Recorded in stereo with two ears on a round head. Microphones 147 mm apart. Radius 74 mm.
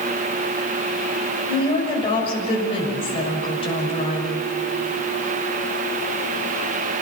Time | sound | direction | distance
1.5 | a woman speaking | 35° left (ahead or behind) | 6.5 m